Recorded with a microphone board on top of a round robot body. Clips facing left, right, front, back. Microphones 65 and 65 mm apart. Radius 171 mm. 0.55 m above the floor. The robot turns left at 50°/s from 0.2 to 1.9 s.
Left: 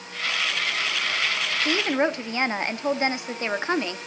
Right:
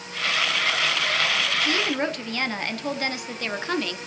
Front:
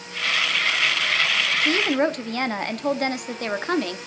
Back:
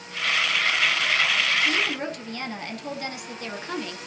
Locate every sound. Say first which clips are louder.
1.6 s a woman speaking: left 6 dB, front 5 dB; 40° left, 1.1 m; by 4.0 s 25° left, 1.1 m